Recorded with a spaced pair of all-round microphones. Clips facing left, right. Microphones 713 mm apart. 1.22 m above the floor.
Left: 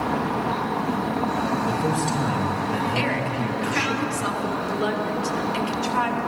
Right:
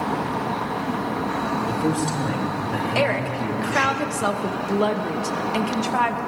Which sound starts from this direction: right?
A woman speaking, at 3.0 s.